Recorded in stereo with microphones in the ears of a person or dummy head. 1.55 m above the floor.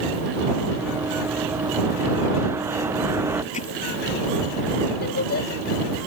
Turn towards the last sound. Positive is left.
turn(degrees=50)  # may be behind; listen again after turning